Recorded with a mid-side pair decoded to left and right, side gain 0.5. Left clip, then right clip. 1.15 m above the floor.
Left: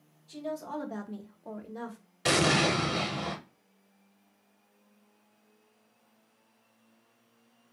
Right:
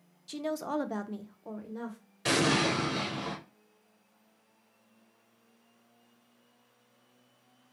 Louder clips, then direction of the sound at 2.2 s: Left 2 dB; 30° left.